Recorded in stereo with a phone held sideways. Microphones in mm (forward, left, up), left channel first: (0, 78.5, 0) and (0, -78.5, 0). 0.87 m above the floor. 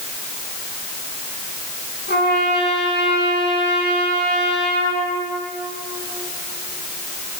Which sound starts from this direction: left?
A trumpet, at 2.1 s.